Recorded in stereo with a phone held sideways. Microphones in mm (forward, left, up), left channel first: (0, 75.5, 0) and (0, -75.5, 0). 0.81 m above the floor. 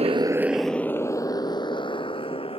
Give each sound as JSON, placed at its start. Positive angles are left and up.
{"t": 0.0, "sound": "a motorcycle", "side_deg": -45}